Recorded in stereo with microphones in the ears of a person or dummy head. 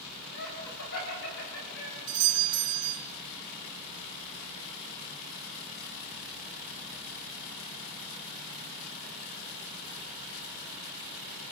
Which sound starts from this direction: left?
Laughter, at 0.3 s.